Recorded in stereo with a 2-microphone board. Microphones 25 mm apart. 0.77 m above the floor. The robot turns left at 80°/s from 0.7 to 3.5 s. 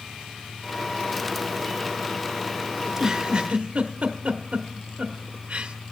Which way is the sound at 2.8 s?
Centre (ahead or behind).